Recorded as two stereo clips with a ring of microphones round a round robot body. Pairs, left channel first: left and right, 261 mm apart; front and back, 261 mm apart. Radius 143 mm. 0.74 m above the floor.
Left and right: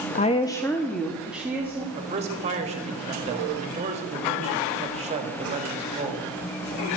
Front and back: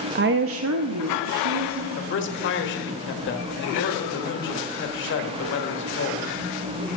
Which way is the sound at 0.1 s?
140° left.